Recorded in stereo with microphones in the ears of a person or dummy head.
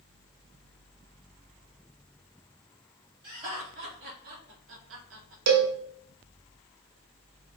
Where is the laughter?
30° right (ahead or behind), 2 m; by 5.4 s 60° right (ahead or behind), 1.4 m.